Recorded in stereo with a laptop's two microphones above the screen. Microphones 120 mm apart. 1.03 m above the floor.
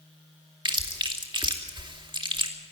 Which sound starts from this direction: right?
Chewing, at 0.7 s.